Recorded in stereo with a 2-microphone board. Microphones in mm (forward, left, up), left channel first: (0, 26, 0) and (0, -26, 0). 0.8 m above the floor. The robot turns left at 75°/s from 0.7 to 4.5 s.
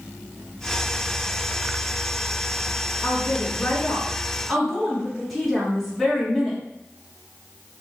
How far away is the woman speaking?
About 1.6 m.